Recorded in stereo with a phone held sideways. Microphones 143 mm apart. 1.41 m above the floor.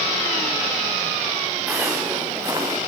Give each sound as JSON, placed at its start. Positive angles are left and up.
{"t": 1.7, "sound": "footsteps", "side_deg": -10, "distance_m": 5.5}